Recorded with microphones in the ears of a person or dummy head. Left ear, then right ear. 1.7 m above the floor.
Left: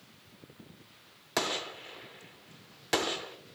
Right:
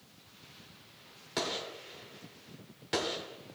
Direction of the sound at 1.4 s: 30° left (ahead or behind).